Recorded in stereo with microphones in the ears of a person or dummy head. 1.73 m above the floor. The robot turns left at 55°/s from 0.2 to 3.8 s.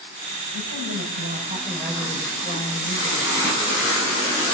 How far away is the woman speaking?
About 6.5 m.